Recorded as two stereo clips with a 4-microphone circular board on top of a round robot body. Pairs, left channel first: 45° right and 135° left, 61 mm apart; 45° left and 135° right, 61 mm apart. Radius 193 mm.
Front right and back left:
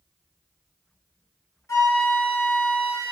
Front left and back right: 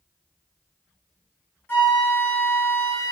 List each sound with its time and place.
1.7 s a flute: 5° right, 1.4 m